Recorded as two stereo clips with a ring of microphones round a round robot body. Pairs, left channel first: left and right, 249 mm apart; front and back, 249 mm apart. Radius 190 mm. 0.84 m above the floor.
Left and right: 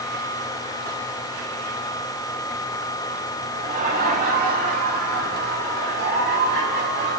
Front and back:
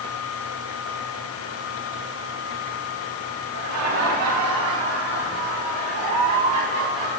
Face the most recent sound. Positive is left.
turn(degrees=-145)